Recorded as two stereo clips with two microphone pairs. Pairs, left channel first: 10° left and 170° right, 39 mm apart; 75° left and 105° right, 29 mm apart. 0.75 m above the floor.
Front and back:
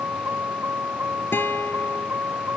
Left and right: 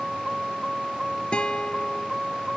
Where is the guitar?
20° left.